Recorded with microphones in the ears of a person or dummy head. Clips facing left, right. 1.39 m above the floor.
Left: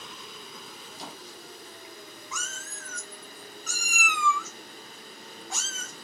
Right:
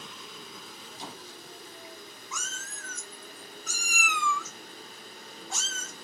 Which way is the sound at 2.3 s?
Centre (ahead or behind).